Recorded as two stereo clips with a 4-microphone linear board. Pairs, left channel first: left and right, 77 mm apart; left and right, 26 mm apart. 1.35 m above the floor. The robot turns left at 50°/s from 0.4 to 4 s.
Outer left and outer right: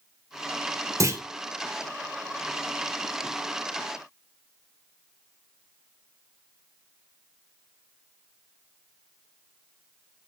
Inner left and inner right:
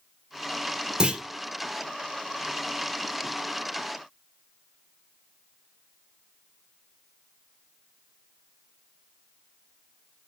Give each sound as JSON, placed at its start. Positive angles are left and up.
{"t": 1.0, "sound": "a clunk", "side_deg": -45, "distance_m": 1.2}